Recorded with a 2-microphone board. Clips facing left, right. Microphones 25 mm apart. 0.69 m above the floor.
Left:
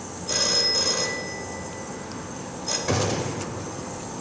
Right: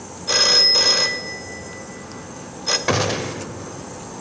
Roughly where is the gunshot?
Right.